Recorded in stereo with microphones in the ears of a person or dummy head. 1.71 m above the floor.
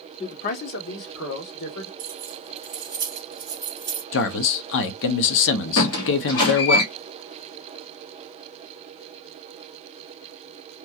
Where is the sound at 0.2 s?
25° left (ahead or behind), 0.7 m; by 1.9 s 80° left, 1.8 m.